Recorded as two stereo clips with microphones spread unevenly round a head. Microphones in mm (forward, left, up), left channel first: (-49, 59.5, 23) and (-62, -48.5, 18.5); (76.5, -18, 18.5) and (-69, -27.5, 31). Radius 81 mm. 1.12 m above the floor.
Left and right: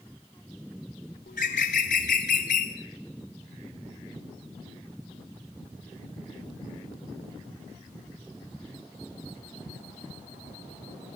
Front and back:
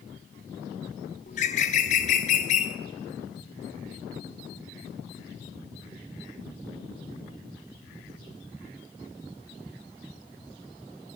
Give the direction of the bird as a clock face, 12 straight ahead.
10 o'clock.